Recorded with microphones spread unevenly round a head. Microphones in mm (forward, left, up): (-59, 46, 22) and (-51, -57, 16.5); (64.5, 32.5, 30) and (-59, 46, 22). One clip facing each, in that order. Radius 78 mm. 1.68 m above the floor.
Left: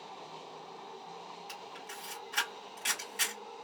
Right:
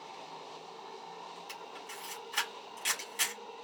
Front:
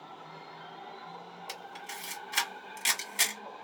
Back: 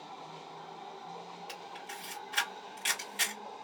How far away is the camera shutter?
About 1.5 m.